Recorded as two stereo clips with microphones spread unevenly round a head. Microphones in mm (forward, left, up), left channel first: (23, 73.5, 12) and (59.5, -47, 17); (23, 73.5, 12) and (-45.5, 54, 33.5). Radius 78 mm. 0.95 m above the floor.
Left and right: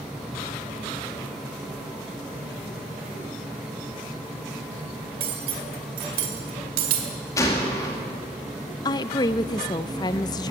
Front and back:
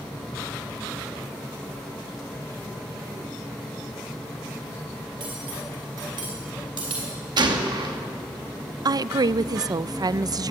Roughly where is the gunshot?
Behind.